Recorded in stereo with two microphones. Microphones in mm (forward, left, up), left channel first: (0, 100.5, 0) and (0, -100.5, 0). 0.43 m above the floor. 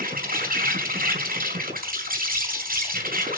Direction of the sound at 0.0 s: 45° right (ahead or behind).